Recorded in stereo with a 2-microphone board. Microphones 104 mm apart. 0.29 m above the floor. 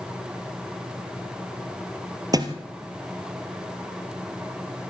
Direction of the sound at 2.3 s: 35° right (ahead or behind).